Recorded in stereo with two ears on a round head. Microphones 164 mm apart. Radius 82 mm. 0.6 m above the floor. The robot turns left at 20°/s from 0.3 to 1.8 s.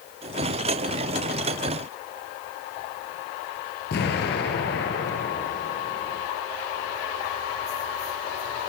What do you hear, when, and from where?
3.9 s an explosion: 65° left (ahead or behind), 5.5 m